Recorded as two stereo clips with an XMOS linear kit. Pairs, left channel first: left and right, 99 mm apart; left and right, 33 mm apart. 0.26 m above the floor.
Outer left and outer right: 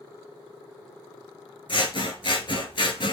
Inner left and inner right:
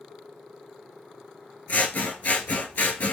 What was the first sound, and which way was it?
Scissors, 60° left (ahead or behind).